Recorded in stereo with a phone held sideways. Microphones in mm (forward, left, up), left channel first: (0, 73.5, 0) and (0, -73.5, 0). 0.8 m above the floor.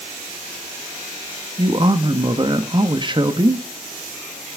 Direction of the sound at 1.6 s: 30° right (ahead or behind).